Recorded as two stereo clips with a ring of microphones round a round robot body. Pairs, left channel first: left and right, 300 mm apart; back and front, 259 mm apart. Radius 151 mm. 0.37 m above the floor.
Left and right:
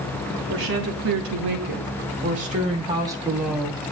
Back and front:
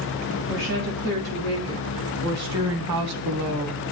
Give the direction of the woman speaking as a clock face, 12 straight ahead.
2 o'clock.